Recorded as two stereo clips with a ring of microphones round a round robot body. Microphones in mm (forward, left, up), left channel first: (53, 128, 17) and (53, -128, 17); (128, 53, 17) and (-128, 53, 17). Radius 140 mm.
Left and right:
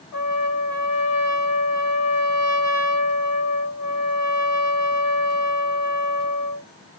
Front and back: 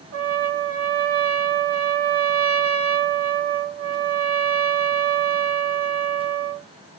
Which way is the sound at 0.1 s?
145° left.